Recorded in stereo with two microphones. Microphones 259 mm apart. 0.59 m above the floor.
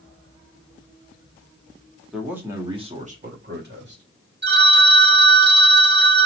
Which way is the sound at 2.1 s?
Centre (ahead or behind).